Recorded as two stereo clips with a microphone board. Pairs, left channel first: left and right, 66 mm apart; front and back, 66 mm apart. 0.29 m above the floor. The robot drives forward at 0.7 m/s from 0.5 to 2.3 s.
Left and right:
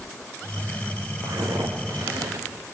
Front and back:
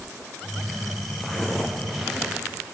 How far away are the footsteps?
About 4 m.